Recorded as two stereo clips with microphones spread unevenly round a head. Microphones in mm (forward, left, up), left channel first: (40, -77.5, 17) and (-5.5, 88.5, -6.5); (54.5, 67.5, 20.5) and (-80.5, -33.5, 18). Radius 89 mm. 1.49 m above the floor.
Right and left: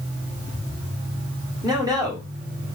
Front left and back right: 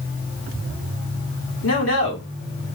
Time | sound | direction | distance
1.6 | a man speaking | 35° left | 1.7 m